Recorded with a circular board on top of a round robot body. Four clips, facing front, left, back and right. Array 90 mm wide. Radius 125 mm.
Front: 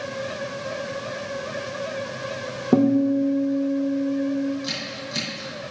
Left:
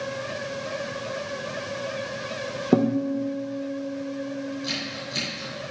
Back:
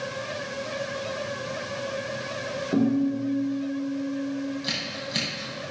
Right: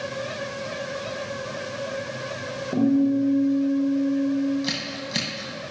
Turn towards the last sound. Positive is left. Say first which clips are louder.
# right 2 dB, front 1 dB
turn(degrees=-100)